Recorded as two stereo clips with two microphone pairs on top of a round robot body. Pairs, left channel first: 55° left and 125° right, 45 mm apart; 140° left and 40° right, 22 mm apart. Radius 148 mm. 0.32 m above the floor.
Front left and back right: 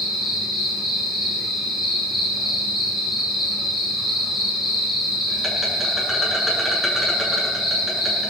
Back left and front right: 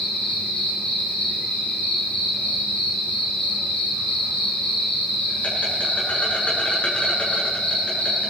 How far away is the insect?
About 7 m.